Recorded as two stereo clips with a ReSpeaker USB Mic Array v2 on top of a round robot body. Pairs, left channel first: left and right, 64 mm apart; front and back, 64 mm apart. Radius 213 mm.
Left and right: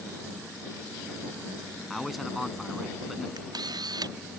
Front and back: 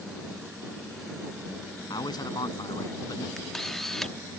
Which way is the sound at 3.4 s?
85° right.